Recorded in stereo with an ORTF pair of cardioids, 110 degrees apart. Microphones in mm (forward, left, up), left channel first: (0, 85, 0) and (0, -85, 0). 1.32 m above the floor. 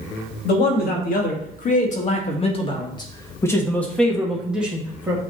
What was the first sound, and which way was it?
A man speaking, 65° left.